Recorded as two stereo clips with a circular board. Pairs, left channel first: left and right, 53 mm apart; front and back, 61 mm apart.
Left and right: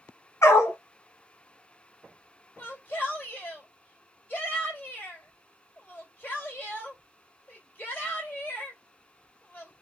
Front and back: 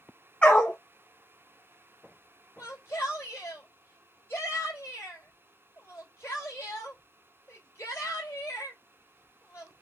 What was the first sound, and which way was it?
A dog barking, 65° left.